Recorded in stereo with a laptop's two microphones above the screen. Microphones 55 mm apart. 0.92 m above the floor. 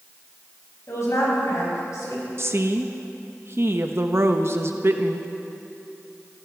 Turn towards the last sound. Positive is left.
turn(degrees=-50)  # may be behind; listen again after turning